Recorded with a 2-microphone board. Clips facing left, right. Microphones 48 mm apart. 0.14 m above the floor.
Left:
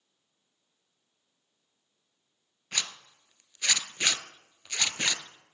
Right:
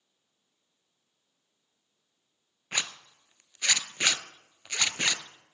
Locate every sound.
2.7 s a zipper: 20° right (ahead or behind), 0.7 m